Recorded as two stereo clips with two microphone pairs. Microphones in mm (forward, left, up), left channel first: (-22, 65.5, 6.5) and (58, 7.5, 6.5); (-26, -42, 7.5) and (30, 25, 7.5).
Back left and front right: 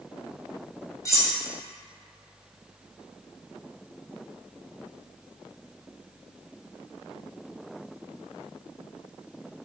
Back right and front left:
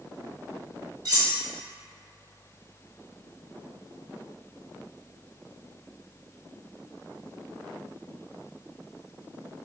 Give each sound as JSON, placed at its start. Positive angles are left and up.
{"t": 1.1, "sound": "cutlery clinking", "azimuth_deg": 85, "distance_m": 1.1}